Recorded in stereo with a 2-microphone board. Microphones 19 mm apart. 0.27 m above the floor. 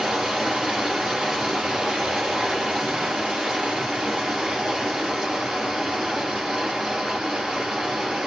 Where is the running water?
70° right (ahead or behind), 3.5 m.